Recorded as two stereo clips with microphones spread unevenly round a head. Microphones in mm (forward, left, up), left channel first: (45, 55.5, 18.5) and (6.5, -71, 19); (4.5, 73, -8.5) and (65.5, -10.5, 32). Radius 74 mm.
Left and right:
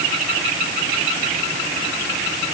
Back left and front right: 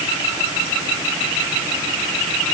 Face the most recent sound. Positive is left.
No sound to turn to.